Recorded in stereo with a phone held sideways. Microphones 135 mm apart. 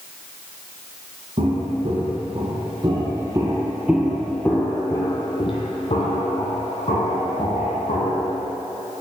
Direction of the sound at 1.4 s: 50° right (ahead or behind).